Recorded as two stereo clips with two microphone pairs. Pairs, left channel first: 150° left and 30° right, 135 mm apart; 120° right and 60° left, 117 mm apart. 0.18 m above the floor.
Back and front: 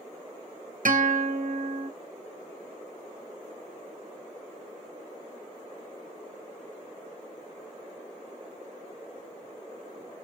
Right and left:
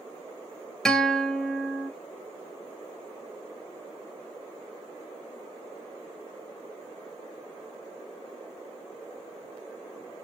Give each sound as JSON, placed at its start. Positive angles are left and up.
{"t": 0.8, "sound": "a guitar", "azimuth_deg": -35, "distance_m": 0.7}